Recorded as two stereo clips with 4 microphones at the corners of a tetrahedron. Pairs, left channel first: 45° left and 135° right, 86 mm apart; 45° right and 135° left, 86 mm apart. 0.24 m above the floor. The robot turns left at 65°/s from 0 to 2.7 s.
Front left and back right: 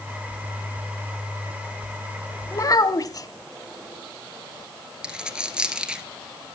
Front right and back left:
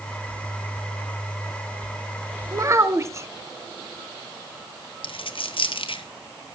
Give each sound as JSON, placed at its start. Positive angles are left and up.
{"t": 2.5, "sound": "a child speaking", "azimuth_deg": 95, "distance_m": 1.3}
{"t": 5.0, "sound": "a dropped coin", "azimuth_deg": -55, "distance_m": 1.7}